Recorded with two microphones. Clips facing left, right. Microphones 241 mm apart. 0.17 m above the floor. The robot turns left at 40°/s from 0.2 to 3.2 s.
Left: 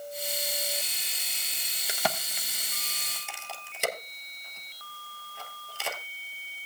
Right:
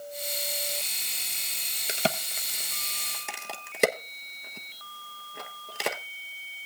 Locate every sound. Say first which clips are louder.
1.9 s a crack: right 3 dB; 25° right (ahead or behind), 0.9 m; by 6.0 s 70° right (ahead or behind), 0.9 m